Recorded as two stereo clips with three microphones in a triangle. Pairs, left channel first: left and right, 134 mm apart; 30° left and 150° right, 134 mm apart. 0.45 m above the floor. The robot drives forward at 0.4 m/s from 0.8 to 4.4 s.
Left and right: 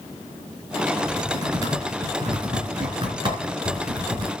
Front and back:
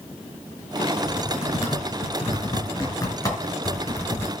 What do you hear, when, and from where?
1.0 s typing on a keyboard: 30° right, 4.5 m; by 4.3 s 40° right, 3.5 m